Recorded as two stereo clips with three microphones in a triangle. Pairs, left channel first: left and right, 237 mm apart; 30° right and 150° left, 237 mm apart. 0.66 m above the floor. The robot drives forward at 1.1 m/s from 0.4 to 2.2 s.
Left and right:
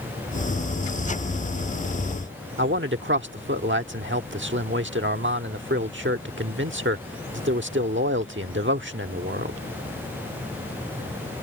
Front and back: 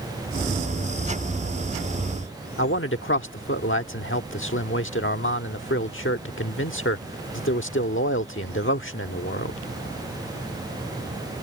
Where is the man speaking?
60° right.